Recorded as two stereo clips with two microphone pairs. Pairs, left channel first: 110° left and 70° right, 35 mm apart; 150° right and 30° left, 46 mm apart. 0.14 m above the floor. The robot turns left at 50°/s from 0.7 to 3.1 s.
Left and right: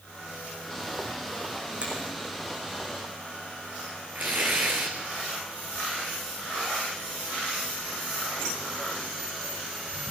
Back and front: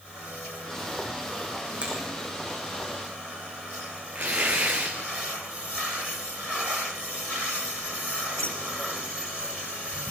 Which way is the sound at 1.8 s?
25° right.